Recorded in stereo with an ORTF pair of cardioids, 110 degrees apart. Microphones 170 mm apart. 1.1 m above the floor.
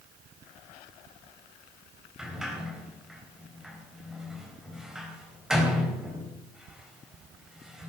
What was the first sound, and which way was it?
A sliding door, 5° right.